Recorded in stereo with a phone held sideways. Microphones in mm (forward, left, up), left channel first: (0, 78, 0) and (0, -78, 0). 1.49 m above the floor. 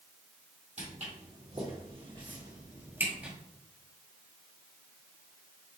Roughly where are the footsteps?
Right.